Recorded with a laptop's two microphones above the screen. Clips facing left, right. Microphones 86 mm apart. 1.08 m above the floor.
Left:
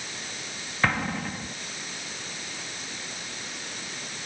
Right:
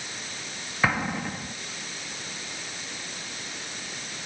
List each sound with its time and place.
0.8 s an explosion: 5° right (ahead or behind)